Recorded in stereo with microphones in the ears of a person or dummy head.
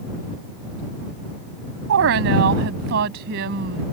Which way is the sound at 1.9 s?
60° right (ahead or behind).